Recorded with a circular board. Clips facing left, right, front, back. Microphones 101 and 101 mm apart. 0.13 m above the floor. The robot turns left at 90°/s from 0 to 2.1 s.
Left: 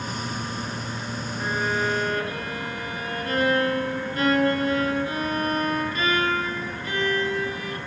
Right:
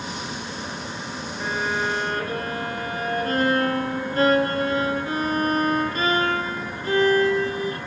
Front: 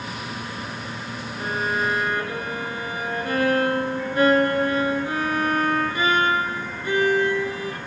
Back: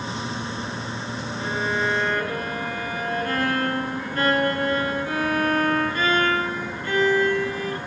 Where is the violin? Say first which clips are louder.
Even, front 1 dB; 5° right, 1.3 m; by 7.8 s 65° right, 1.3 m.